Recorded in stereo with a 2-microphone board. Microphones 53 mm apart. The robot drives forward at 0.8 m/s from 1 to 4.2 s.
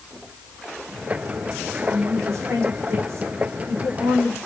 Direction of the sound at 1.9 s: 65° right (ahead or behind).